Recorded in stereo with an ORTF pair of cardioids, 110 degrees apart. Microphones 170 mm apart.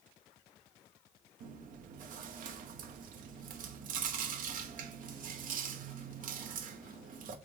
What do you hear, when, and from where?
1.4 s chewing: 50° right, 0.7 m